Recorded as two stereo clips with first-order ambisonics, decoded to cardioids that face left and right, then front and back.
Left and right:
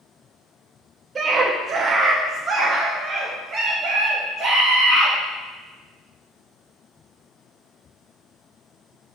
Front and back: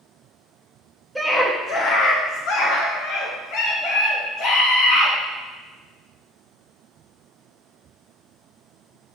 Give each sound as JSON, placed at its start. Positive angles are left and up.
{"t": 1.1, "sound": "a scream", "azimuth_deg": -90, "distance_m": 0.6}